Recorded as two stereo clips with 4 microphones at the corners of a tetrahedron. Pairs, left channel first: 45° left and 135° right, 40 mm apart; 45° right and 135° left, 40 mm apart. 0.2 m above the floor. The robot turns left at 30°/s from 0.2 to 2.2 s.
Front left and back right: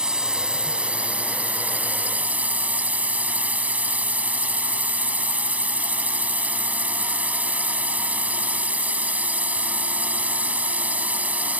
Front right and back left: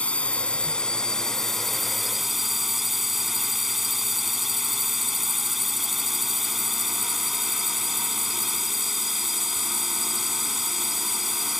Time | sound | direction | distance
0.0 | a drone | 80° right | ?